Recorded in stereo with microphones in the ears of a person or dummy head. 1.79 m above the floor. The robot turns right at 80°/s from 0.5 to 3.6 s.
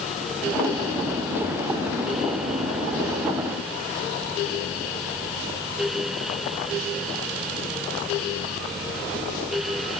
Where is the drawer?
I don't hear a drawer.